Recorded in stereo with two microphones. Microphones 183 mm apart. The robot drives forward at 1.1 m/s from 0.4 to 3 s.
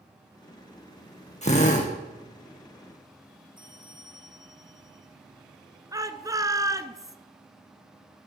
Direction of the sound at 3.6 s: 25° right (ahead or behind).